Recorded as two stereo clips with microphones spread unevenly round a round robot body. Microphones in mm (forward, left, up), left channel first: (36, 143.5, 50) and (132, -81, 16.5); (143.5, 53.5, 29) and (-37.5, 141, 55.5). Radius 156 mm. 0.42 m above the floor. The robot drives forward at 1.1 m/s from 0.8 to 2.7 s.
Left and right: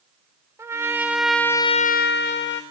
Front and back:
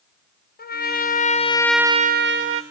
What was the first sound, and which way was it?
A trumpet, 10° left.